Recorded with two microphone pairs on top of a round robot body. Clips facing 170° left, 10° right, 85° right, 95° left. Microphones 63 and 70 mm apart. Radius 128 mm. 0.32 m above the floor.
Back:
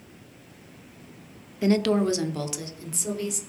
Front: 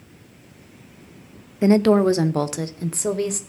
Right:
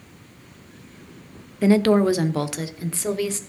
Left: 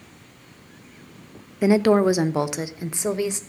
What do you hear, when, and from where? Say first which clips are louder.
1.6 s a woman speaking: front 7 dB, even; 45° left, 0.8 m; by 3.4 s 30° left, 1.6 m